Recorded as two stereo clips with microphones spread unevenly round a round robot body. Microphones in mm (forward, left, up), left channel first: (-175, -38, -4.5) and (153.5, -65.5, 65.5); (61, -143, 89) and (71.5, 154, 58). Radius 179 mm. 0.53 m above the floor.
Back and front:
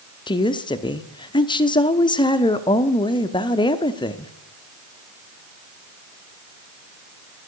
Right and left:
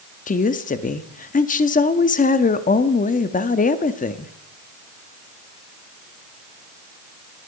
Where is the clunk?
No clunk in this recording.